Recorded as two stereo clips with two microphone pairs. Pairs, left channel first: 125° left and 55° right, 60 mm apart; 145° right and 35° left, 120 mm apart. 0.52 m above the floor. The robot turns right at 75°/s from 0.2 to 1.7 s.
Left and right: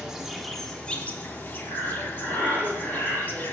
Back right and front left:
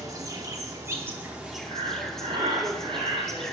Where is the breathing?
45° left, 2.5 m; by 3.4 s 50° left, 2.5 m.